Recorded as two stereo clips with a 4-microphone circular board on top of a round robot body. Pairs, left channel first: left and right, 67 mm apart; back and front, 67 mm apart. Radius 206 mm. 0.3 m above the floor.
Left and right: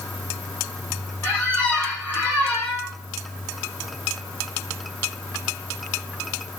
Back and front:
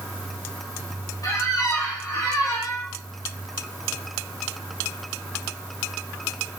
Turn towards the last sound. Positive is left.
turn(degrees=155)